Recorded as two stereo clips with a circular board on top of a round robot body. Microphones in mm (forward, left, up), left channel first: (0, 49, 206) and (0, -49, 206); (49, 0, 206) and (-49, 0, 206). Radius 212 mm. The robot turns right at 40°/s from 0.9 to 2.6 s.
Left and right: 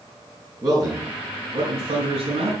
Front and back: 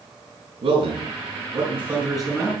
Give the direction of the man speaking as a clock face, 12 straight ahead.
5 o'clock.